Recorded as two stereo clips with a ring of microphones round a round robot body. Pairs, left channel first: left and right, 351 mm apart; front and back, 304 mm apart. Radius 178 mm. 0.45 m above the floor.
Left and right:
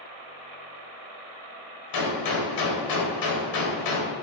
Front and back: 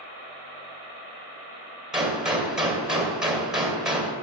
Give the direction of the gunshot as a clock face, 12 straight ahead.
9 o'clock.